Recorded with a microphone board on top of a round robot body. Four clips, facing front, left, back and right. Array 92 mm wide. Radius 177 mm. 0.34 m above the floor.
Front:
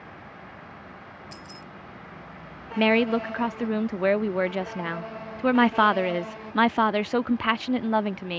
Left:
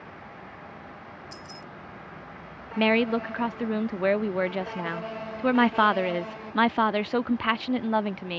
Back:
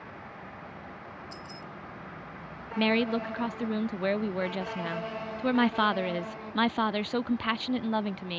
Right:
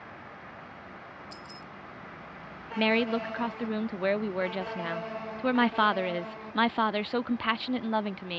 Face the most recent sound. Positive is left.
turn(degrees=25)